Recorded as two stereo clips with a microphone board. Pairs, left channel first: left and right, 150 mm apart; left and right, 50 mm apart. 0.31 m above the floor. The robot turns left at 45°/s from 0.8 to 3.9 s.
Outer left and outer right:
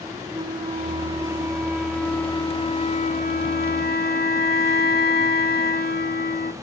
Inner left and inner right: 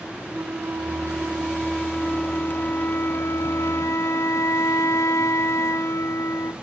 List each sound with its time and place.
0.3 s a flute: 135° right, 0.6 m; by 6.5 s 85° left, 0.6 m